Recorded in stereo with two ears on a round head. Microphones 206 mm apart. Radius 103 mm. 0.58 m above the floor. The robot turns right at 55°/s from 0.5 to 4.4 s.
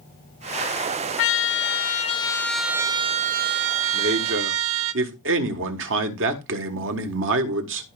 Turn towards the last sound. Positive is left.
turn(degrees=-60)  # may be behind; listen again after turning